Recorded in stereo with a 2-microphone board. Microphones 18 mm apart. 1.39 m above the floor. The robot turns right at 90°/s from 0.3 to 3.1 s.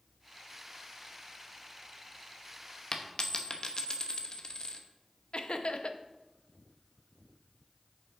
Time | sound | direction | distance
2.9 | a dropped coin | 35° left (ahead or behind) | 0.8 m
5.3 | laughter | 75° left (ahead or behind) | 0.7 m